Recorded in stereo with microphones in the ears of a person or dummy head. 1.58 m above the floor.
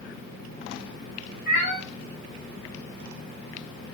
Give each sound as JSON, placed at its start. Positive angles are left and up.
{"t": 1.5, "sound": "a cat meowing", "side_deg": 55, "distance_m": 3.5}